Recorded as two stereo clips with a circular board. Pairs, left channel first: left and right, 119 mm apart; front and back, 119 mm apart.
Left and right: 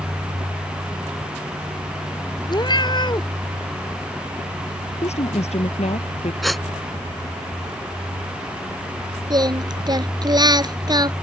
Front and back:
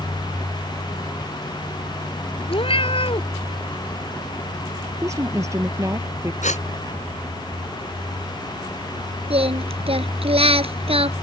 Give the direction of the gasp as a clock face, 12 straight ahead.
12 o'clock.